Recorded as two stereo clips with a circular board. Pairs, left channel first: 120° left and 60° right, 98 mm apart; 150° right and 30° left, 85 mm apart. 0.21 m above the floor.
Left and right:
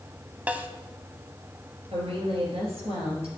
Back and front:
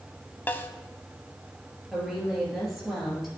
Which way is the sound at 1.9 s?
60° right.